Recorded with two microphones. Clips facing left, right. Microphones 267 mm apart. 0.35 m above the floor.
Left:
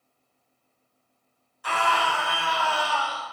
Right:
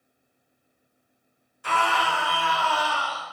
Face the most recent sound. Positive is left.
turn(degrees=-50)  # may be behind; listen again after turning